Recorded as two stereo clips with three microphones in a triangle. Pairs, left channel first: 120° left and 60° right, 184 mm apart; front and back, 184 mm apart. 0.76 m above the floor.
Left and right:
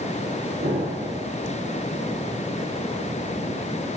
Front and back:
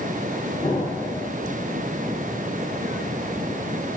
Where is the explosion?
75° right, 1.6 m.